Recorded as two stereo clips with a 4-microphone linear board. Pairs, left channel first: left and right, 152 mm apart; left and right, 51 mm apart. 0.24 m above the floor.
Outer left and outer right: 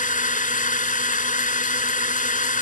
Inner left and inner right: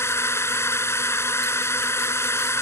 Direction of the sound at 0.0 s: 60° left (ahead or behind).